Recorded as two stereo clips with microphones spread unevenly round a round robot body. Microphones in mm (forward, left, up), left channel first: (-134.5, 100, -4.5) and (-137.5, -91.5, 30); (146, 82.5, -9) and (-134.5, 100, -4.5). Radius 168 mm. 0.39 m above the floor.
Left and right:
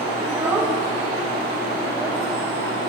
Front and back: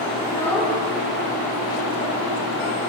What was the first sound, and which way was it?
A child speaking, straight ahead.